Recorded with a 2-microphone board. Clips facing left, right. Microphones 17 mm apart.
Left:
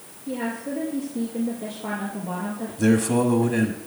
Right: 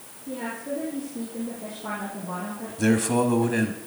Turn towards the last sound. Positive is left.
turn(degrees=-10)  # may be behind; listen again after turning